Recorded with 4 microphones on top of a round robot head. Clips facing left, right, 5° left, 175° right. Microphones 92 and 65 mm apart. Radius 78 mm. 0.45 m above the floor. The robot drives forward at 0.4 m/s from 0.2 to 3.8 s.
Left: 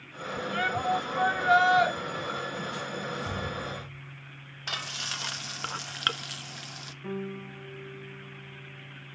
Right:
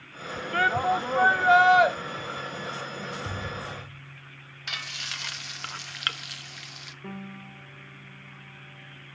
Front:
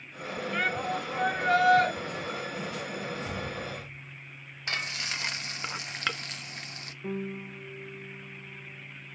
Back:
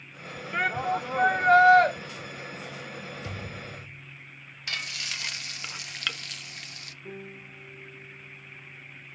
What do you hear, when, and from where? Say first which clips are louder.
0.5 s a shout: right 5 dB, back 4 dB; 105° right, 1.6 m; by 1.9 s 125° right, 1.8 m
3.2 s a thud: left 1 dB, front 4 dB; 145° right, 7 m
4.7 s frying: left 1 dB, front 2 dB; 50° left, 0.6 m
7.0 s a piano: left 5 dB, front 8 dB; 10° right, 2 m